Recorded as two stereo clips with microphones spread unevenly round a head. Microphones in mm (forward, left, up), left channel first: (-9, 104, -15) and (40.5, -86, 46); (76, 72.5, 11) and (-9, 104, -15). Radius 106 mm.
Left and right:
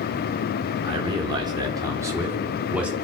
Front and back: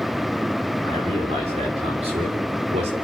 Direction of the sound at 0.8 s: 140° right.